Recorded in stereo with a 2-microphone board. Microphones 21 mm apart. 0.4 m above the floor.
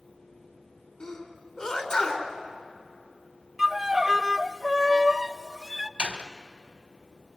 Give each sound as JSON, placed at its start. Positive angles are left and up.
{"t": 1.0, "sound": "a sneeze", "side_deg": 50, "distance_m": 4.0}
{"t": 3.6, "sound": "a violin", "side_deg": -20, "distance_m": 0.7}
{"t": 6.0, "sound": "a door slam", "side_deg": -70, "distance_m": 1.5}